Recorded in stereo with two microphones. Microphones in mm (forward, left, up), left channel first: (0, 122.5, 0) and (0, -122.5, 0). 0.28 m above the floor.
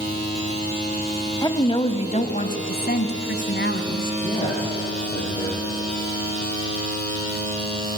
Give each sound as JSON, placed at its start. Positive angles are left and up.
{"t": 1.4, "sound": "a woman speaking", "side_deg": 15, "distance_m": 1.4}
{"t": 4.2, "sound": "a man speaking", "side_deg": 20, "distance_m": 10.0}